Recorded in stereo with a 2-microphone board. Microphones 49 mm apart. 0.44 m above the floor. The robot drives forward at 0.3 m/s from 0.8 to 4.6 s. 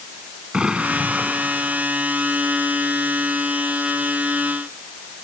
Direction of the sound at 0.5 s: 20° right (ahead or behind).